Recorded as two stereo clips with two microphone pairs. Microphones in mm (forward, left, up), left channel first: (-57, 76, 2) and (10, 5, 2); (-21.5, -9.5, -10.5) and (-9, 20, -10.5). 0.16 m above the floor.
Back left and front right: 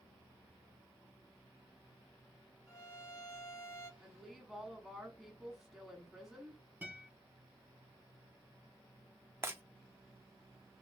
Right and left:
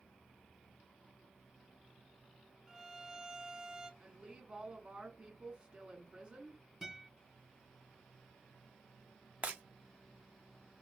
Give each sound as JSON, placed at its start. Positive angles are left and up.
{"t": 2.7, "sound": "a violin", "azimuth_deg": 125, "distance_m": 1.2}
{"t": 4.0, "sound": "a woman speaking", "azimuth_deg": 45, "distance_m": 1.2}
{"t": 6.8, "sound": "a guitar", "azimuth_deg": 0, "distance_m": 1.6}
{"t": 9.4, "sound": "breaking glass", "azimuth_deg": 20, "distance_m": 0.7}